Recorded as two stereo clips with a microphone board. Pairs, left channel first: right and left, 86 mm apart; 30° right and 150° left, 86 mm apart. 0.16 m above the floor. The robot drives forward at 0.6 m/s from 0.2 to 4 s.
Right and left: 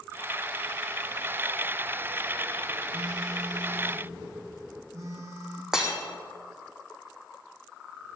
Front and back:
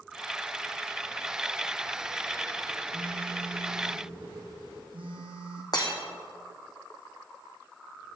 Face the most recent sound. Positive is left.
turn(degrees=10)